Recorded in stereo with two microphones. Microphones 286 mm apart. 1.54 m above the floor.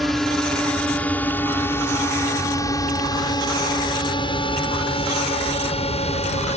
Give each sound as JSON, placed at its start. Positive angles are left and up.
{"t": 0.0, "sound": "a drone", "side_deg": 0}